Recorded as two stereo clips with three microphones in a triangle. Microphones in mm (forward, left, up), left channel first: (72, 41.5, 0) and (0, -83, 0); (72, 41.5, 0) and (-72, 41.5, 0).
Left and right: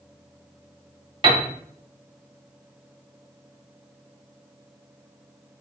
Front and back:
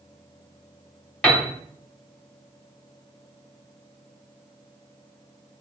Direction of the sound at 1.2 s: 80° right.